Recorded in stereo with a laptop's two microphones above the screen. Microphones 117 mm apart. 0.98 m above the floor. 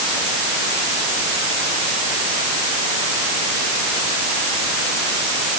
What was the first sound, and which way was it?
Only background noise.